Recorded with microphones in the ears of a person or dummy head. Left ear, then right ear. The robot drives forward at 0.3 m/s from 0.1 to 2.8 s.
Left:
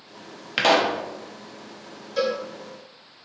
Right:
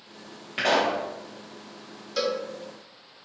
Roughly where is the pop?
Left.